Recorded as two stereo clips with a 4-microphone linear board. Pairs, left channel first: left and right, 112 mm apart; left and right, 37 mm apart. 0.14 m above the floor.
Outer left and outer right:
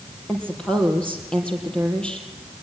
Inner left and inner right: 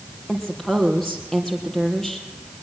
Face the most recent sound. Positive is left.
turn(degrees=10)  # may be behind; listen again after turning